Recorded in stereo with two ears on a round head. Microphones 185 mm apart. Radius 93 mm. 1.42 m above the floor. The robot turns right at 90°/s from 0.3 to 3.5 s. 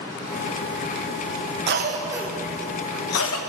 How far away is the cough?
About 1.3 m.